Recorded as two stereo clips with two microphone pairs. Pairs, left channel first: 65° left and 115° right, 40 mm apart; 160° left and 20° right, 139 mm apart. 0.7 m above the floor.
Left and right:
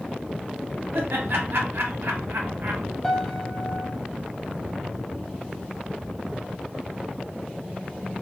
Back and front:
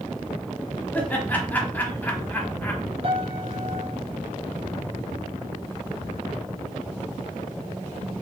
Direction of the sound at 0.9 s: 125° right.